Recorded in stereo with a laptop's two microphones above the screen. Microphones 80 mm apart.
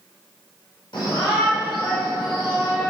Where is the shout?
80° left, 3.5 m.